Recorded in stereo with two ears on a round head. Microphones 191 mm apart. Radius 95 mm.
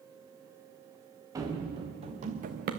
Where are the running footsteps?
15° right (ahead or behind), 3 m; by 2.7 s 45° right (ahead or behind), 2.5 m.